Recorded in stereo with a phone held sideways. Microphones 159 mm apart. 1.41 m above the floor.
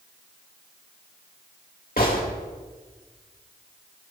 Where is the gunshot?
65° left (ahead or behind), 2.5 m.